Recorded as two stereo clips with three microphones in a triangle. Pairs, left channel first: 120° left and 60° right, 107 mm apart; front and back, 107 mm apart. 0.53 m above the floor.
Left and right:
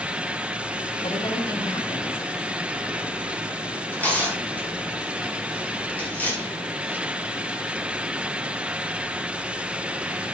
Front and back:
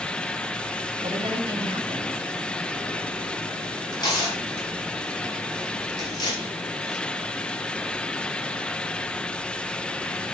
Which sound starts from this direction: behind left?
A woman speaking, at 1.0 s.